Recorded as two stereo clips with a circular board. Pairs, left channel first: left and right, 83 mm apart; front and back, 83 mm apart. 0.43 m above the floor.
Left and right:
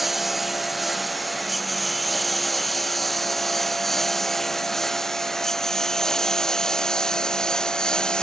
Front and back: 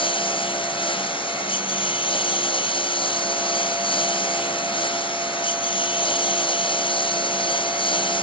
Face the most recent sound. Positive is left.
turn(degrees=10)